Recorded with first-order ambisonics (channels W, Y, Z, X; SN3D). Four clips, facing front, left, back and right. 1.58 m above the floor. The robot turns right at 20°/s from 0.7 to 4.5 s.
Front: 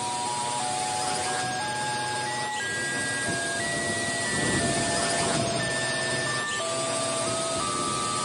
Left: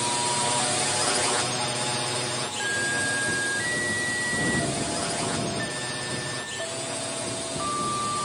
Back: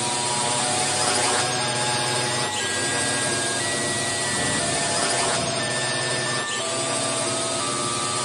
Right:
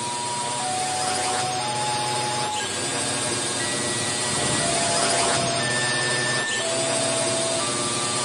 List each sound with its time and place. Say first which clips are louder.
0.0 s a drone: left 1 dB, back 4 dB; 160° left; by 8.2 s 125° right